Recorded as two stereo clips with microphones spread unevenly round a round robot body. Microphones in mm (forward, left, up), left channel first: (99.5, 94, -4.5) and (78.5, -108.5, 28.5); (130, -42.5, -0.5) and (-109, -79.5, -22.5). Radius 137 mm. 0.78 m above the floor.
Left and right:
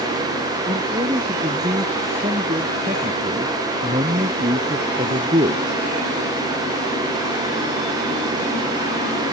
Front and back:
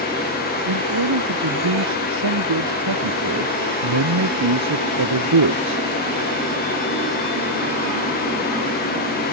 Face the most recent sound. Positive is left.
turn(degrees=-165)